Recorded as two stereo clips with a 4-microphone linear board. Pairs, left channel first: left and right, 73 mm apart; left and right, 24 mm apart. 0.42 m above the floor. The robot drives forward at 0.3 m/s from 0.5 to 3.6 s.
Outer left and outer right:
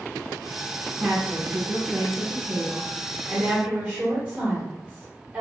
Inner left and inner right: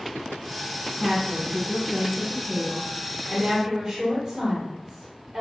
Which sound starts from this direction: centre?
A woman speaking, at 1.0 s.